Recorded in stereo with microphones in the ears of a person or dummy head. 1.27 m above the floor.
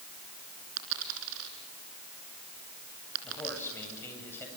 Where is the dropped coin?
70° right (ahead or behind), 3.5 m.